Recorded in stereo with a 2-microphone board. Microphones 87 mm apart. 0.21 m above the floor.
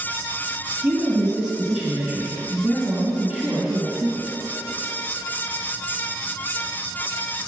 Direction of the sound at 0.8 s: 15° right (ahead or behind).